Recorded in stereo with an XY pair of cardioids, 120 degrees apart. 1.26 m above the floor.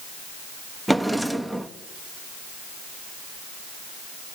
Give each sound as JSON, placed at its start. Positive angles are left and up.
{"t": 0.9, "sound": "a drawer", "azimuth_deg": 0, "distance_m": 1.1}